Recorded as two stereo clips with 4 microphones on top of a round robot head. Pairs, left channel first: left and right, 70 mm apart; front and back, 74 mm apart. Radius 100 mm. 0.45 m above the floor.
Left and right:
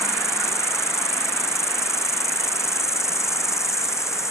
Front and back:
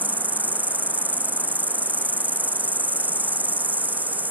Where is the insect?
120° left.